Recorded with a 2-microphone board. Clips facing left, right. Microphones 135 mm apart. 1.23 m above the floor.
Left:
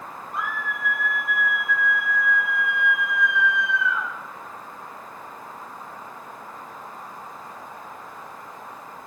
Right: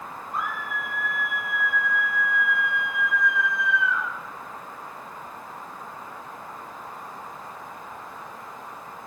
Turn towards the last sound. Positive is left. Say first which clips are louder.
# even
turn(degrees=75)  # may be behind; listen again after turning